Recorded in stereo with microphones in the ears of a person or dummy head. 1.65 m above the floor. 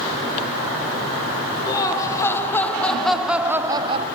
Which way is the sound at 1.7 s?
20° left (ahead or behind).